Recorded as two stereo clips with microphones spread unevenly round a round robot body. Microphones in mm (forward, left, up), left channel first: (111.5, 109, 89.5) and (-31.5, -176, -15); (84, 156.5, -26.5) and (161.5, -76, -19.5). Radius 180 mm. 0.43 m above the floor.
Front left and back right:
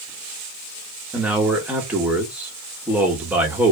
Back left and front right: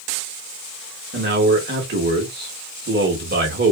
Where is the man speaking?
60° right, 1.0 m.